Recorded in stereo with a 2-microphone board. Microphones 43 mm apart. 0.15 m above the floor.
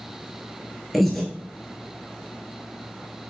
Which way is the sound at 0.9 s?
Centre (ahead or behind).